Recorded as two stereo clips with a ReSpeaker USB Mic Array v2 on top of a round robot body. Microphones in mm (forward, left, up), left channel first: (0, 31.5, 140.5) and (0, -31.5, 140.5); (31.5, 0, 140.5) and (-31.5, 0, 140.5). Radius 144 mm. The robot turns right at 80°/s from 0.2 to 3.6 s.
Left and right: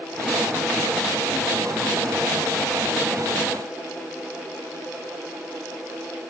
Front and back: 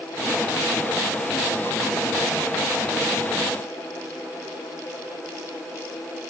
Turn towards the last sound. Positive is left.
No sound to turn to.